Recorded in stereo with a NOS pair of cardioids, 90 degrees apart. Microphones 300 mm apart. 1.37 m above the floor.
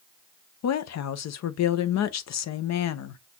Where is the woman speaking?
65° left, 0.8 m.